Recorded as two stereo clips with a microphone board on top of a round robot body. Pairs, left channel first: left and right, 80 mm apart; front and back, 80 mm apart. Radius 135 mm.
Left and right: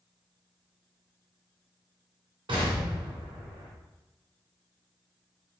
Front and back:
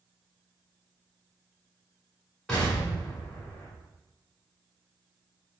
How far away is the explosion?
About 1.8 m.